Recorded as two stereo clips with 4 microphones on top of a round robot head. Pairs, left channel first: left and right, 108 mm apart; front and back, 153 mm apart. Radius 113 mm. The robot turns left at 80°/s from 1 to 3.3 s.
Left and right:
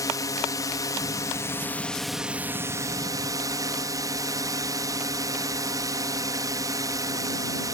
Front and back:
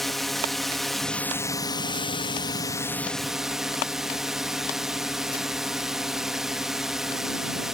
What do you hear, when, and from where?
0.0 s a drone: 85° left; by 7.7 s 95° right